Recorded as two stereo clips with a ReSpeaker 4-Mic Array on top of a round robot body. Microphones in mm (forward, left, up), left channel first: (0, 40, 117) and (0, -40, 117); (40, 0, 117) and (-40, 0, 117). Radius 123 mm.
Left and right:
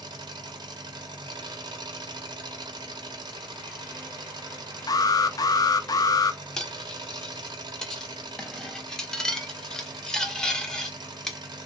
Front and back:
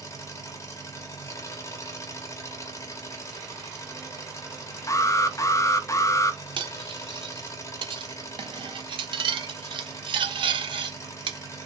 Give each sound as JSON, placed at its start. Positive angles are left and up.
{"t": 0.0, "sound": "an engine running", "azimuth_deg": -55, "distance_m": 1.0}
{"t": 4.9, "sound": "an alarm", "azimuth_deg": 50, "distance_m": 0.7}
{"t": 6.6, "sound": "cutlery clinking", "azimuth_deg": 175, "distance_m": 0.8}